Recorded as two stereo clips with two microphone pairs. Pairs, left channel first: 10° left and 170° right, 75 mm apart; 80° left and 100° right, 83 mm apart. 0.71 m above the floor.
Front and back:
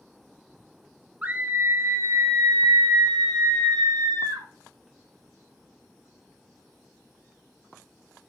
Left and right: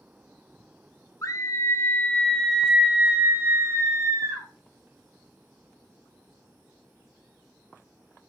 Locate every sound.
1.2 s a scream: 120° left, 1.0 m; by 4.5 s 150° right, 1.4 m